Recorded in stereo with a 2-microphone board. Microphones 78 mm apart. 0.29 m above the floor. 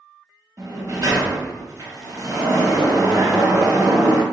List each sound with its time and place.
0.6 s a sliding door: 45° right (ahead or behind), 0.9 m